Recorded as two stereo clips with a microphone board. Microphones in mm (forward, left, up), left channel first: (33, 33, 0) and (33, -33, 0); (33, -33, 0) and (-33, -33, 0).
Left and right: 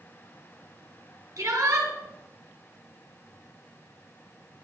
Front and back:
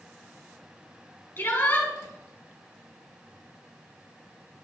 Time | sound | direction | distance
1.4 | a shout | 55° right | 5 m